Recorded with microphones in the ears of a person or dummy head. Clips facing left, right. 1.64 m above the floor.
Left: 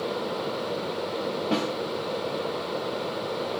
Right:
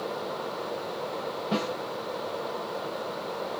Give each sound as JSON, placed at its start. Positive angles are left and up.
{"t": 1.5, "sound": "a snare drum", "side_deg": 85, "distance_m": 2.0}